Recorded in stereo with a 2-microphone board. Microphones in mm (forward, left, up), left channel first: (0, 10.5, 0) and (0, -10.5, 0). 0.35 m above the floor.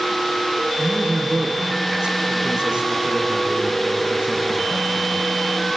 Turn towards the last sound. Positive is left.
turn(degrees=-40)  # may be behind; listen again after turning